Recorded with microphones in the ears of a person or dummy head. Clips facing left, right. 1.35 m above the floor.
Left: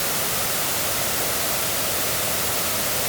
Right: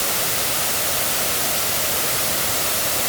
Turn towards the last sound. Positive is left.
No sound to turn to.